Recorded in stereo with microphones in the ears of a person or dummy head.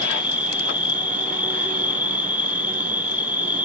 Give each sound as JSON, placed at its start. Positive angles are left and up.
{"t": 0.0, "sound": "an insect", "side_deg": -15, "distance_m": 1.3}